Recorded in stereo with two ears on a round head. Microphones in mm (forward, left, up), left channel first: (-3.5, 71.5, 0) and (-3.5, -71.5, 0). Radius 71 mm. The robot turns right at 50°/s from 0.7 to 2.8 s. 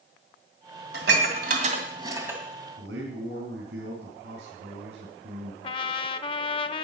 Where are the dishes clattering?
75° right (ahead or behind), 2 m; by 2.4 s 10° right (ahead or behind), 2 m.